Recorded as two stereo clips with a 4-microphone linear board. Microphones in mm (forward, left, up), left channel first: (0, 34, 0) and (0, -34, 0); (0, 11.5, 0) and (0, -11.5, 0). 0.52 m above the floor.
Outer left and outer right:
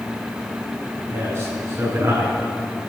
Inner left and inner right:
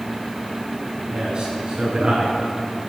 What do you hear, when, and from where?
1.1 s a man speaking: 35° right (ahead or behind), 5 m; by 2.4 s 45° right (ahead or behind), 6 m